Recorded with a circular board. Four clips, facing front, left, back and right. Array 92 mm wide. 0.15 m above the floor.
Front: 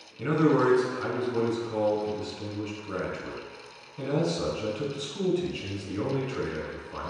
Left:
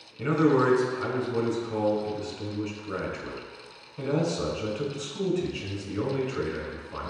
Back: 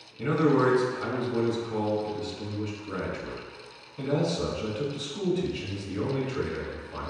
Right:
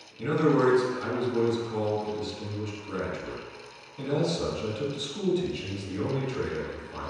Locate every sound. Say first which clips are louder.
0.2 s a man speaking: left 1 dB, even; 65° left, 1.1 m